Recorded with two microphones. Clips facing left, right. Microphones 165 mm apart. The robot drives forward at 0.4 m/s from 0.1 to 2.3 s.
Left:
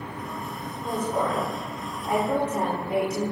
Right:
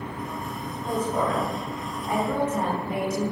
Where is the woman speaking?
25° left (ahead or behind), 1.0 m; by 3.3 s 30° left (ahead or behind), 0.9 m.